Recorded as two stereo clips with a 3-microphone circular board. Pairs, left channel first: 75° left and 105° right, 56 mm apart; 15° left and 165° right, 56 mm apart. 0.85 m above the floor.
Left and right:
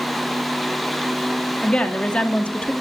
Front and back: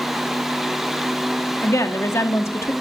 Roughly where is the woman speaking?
Ahead.